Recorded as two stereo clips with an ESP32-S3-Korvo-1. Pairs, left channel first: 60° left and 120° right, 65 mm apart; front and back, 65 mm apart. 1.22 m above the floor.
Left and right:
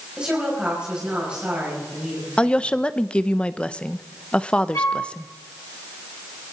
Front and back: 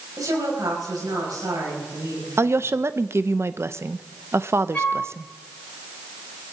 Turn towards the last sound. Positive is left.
turn(degrees=70)